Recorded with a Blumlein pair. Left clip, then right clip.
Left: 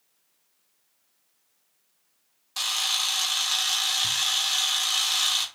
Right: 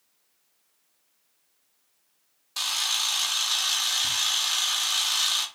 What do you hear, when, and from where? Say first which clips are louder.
2.6 s a camera shutter: left 1 dB; straight ahead, 0.6 m